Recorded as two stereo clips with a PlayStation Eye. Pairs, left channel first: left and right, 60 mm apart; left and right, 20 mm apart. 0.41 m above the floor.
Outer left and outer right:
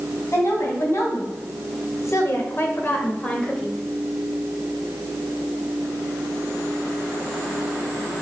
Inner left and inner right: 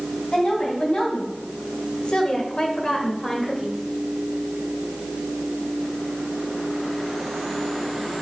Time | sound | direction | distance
0.3 | a woman speaking | 50° left (ahead or behind) | 3.5 m